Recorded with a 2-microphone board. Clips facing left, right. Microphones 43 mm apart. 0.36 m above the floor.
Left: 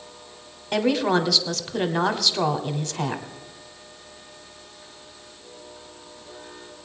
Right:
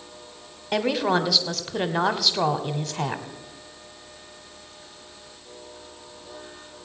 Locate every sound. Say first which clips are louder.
0.7 s a woman speaking: left 1 dB; 5° right (ahead or behind), 0.9 m